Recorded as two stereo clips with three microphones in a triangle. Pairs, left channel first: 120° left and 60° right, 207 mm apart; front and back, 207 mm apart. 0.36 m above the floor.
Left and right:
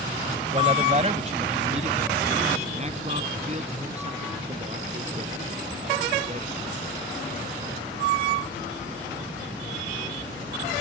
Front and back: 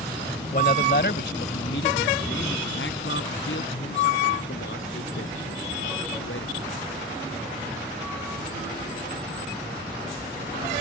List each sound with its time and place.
0.5 s a man speaking: 15° right; by 6.7 s 5° right